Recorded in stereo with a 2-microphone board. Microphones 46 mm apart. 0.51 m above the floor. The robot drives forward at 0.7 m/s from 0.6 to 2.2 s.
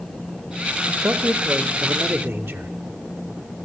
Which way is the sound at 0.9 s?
50° right (ahead or behind).